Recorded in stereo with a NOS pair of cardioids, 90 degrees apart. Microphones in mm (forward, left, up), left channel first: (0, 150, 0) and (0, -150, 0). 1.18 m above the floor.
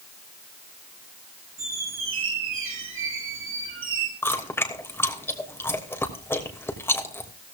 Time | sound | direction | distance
1.6 | a squeak | 45° right | 5 m
4.2 | chewing | 10° left | 2.5 m